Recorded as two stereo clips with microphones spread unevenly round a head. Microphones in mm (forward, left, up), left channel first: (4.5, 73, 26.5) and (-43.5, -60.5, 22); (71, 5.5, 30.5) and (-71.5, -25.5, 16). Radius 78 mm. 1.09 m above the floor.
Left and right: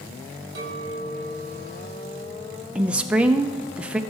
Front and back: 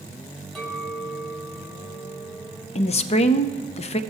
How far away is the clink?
About 3.5 m.